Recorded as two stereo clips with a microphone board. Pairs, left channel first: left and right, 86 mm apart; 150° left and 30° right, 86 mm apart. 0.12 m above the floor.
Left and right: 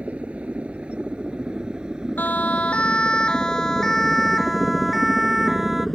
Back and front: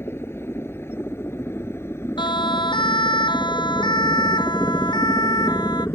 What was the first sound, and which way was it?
A helicopter, 160° right.